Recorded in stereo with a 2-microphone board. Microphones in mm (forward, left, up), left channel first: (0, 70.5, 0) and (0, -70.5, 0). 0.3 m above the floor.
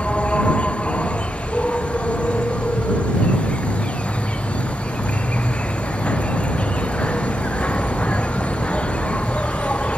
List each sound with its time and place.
0.0 s an insect: 10° left (ahead or behind)